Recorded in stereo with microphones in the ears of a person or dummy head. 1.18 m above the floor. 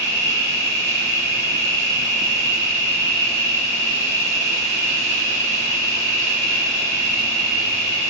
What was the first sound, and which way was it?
An insect, 10° right (ahead or behind).